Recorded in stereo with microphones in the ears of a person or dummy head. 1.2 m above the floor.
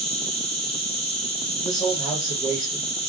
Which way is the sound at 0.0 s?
40° left (ahead or behind).